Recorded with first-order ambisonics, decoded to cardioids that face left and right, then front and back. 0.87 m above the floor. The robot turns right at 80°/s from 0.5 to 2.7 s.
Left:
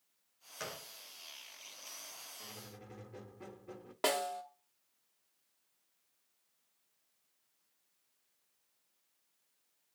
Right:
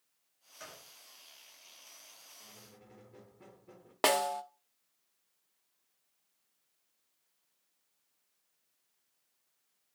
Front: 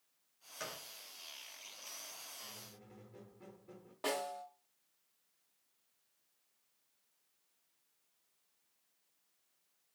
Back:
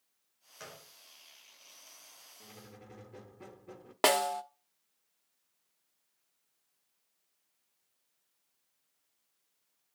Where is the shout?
No shout in this recording.